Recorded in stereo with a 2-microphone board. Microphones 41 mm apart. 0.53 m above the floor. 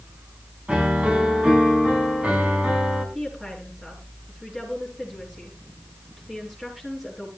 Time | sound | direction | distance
0.7 | a piano | 30° right (ahead or behind) | 3.5 m
3.1 | a woman speaking | 5° right (ahead or behind) | 7.5 m